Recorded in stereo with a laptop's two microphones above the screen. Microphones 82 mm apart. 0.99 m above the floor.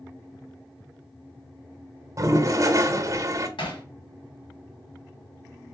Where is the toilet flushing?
40° right (ahead or behind), 0.8 m.